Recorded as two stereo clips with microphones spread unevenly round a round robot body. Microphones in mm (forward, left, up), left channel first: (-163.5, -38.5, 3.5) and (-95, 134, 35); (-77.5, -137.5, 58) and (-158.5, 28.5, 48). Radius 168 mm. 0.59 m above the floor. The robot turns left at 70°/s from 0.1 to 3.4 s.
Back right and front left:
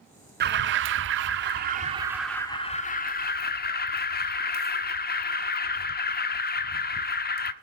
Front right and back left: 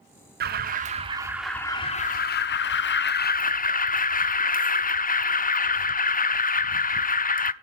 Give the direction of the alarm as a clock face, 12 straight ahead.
9 o'clock.